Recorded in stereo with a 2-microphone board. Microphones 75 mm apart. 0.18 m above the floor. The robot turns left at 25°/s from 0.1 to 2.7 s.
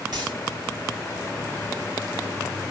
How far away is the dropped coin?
About 5.5 m.